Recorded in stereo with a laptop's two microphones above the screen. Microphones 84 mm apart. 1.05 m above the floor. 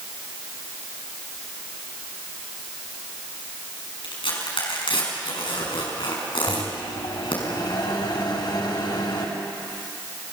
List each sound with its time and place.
4.0 s tearing paper: 80° left, 5.5 m
6.5 s a microwave: 55° left (ahead or behind), 4 m